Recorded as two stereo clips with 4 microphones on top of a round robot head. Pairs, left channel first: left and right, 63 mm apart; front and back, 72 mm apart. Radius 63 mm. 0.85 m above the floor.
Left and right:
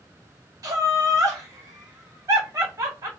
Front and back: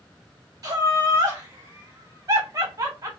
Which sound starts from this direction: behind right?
Laughter, at 0.6 s.